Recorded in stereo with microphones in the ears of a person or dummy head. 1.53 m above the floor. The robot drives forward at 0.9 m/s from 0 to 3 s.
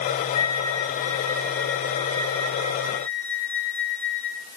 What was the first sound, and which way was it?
A flute, 25° left (ahead or behind).